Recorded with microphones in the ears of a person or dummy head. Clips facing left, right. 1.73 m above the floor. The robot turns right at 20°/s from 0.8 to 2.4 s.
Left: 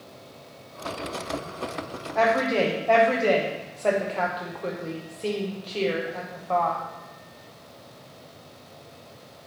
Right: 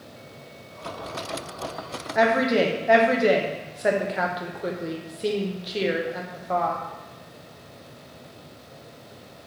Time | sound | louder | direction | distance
2.1 | a woman speaking | right 2 dB | 20° right (ahead or behind) | 0.7 m